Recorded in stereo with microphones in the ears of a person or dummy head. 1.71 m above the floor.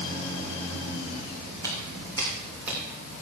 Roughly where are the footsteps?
Right.